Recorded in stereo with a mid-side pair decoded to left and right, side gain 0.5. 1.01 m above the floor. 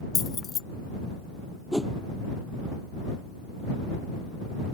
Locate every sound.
0.1 s keys jangling: 40° left
1.7 s a whoosh: straight ahead